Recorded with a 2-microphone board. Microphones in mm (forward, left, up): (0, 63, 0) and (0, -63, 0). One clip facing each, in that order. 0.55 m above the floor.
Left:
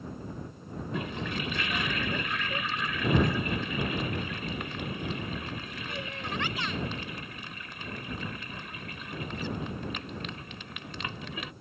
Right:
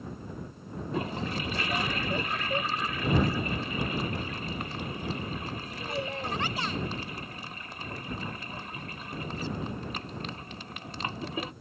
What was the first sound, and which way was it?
A toilet flushing, 35° right (ahead or behind).